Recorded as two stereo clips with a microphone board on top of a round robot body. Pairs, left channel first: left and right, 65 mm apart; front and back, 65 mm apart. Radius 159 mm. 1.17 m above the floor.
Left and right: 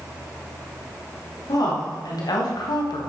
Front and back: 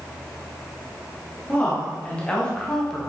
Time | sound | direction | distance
1.5 | a woman speaking | 70° left | 3 m